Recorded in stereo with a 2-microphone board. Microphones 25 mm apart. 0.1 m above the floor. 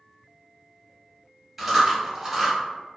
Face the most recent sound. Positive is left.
turn(degrees=-15)  # may be behind; listen again after turning